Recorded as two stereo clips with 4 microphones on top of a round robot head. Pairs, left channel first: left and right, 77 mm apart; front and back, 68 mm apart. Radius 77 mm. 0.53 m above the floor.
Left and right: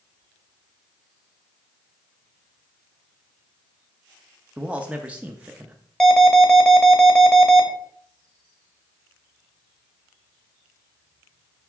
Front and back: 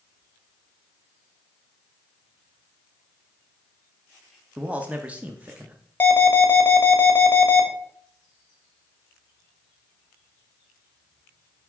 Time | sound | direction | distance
4.6 | a man speaking | 140° right | 0.8 m
6.0 | an alarm | 10° left | 1.7 m